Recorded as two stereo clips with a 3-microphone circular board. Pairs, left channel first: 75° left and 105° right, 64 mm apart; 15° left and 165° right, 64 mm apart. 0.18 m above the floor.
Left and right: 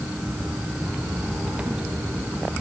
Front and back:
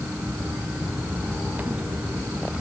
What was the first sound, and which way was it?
Only background noise.